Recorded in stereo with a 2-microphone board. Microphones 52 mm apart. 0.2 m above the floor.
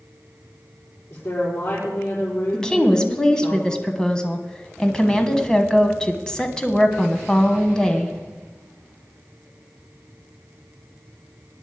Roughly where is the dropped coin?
No dropped coin in this recording.